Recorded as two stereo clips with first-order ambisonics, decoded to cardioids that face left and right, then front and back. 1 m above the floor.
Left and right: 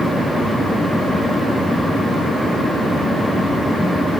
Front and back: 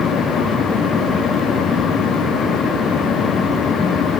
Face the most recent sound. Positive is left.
No sound to turn to.